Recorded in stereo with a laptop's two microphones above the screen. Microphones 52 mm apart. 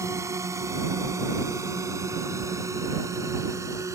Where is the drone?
75° right (ahead or behind); by 4.0 s 85° right.